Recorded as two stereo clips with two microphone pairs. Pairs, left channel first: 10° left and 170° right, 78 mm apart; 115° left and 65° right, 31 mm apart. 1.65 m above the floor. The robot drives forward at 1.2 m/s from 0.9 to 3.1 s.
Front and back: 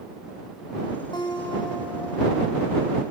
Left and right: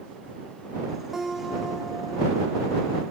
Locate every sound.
1.1 s a guitar: 20° left, 5 m; by 2.5 s 30° left, 3.5 m